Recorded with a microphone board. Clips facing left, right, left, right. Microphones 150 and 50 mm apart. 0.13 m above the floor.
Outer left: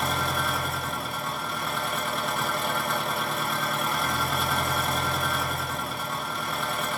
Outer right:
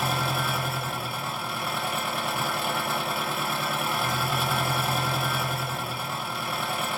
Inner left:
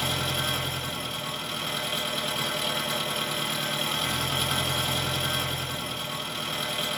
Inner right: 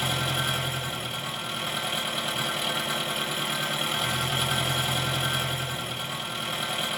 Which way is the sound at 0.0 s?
5° right (ahead or behind).